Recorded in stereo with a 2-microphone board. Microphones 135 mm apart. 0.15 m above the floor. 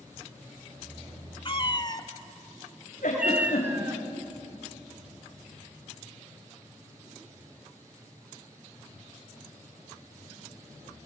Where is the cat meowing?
40° left (ahead or behind), 1.0 m; by 4.0 s 20° right (ahead or behind), 1.3 m.